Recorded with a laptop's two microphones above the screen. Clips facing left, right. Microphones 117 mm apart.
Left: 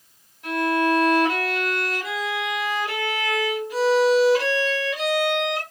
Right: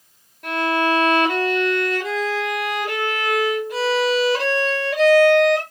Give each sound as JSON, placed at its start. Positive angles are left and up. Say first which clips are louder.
{"t": 0.4, "sound": "a violin", "louder": "right 1 dB", "side_deg": -55, "distance_m": 1.7}